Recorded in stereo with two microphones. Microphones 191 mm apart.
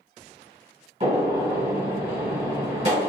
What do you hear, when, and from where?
1.0 s a gunshot: 35° right (ahead or behind), 1.4 m